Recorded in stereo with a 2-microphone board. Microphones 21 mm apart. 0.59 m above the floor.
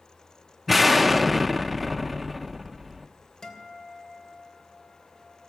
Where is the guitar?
25° left (ahead or behind), 2.5 m.